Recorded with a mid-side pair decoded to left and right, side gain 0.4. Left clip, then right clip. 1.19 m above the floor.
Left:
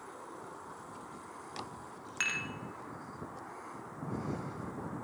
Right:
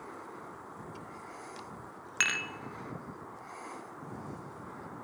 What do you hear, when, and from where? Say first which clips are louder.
2.2 s dishes clattering: right 4 dB; 45° right, 0.7 m